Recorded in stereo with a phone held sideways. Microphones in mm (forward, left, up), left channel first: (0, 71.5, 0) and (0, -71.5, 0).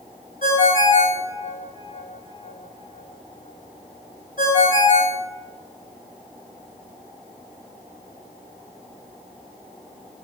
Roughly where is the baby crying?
No baby crying in this recording.